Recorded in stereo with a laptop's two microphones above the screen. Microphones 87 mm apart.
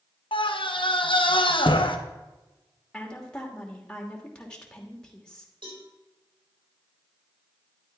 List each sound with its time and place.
0.3 s a scream: 75° left (ahead or behind), 1.1 m
2.9 s a woman speaking: 10° left (ahead or behind), 2.5 m
5.6 s a cowbell: 70° right (ahead or behind), 3.5 m